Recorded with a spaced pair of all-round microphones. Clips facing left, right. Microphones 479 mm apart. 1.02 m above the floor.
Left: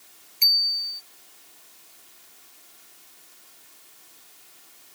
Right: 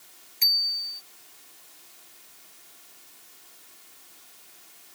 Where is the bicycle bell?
35° right (ahead or behind).